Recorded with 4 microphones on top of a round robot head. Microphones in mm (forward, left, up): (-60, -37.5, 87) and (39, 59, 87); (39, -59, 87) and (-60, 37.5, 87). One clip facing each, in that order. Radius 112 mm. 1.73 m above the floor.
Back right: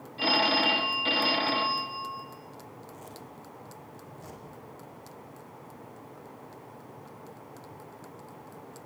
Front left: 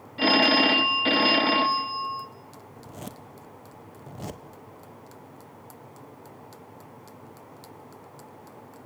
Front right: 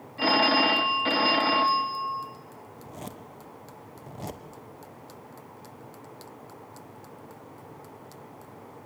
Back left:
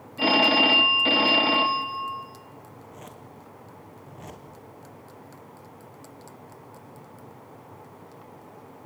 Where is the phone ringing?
65° left, 0.8 m.